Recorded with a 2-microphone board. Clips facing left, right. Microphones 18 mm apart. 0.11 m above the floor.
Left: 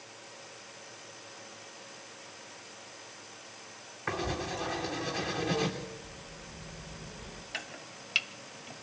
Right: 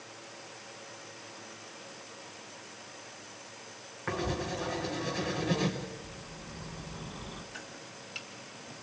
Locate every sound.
4.1 s writing: 10° left (ahead or behind), 3.5 m
5.8 s a bird: 70° right (ahead or behind), 2.5 m
7.5 s chopping: 50° left (ahead or behind), 0.8 m